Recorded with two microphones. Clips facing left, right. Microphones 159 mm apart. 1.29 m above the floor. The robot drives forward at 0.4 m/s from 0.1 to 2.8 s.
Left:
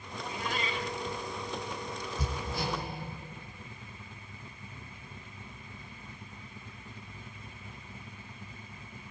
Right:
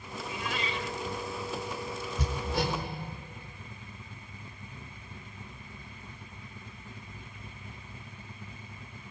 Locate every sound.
0.2 s a cat meowing: 45° left (ahead or behind), 1.3 m
2.2 s hammering: 85° right, 4.5 m